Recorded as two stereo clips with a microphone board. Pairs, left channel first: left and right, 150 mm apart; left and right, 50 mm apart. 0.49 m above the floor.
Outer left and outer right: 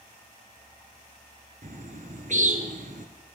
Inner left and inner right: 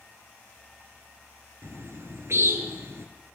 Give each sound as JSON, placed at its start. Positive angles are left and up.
{"t": 1.6, "sound": "a bird", "side_deg": -60, "distance_m": 1.3}